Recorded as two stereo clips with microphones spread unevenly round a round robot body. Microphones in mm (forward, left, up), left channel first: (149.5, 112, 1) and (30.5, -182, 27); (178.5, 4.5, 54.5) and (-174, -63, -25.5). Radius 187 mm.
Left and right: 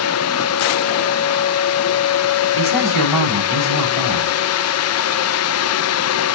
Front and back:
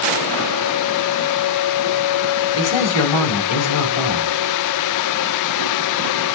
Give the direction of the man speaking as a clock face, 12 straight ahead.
10 o'clock.